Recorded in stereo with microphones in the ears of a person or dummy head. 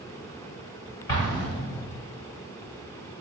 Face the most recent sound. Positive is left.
turn(degrees=40)  # may be behind; listen again after turning